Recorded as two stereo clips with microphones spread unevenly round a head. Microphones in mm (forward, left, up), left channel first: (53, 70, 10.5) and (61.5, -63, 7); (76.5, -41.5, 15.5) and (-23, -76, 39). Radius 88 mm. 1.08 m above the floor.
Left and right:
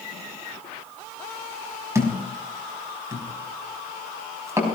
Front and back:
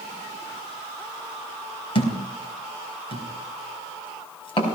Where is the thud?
20° right, 4 m.